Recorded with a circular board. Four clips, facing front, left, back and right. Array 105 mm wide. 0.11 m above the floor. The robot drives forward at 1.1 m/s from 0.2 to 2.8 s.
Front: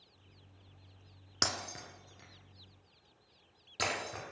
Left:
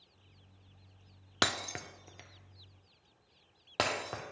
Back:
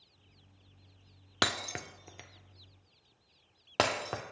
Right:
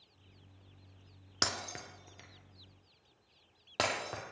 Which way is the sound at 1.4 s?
140° left.